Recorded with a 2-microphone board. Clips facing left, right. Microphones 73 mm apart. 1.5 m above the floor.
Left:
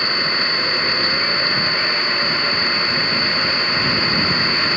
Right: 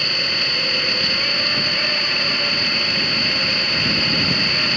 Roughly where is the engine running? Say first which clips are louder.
Left 4 dB; left.